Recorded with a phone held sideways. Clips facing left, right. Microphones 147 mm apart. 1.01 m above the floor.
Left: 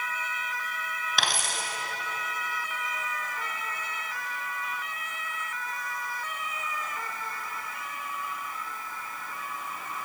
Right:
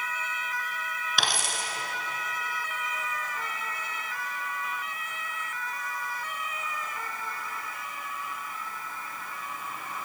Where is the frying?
I don't hear frying.